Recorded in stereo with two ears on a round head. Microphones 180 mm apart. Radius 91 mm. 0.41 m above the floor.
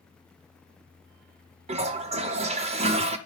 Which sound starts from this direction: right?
A toilet flushing, at 1.7 s.